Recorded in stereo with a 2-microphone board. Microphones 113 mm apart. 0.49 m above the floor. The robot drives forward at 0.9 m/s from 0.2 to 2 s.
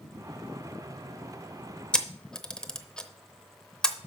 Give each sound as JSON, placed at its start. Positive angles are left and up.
{"t": 1.9, "sound": "a camera shutter", "side_deg": 10, "distance_m": 0.7}